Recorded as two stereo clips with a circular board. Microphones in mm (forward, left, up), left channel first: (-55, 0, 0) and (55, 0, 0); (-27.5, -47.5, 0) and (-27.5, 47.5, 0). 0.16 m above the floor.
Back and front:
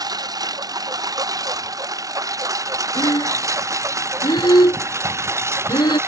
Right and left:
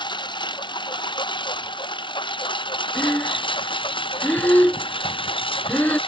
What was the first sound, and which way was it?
A lawn mower, 55° right.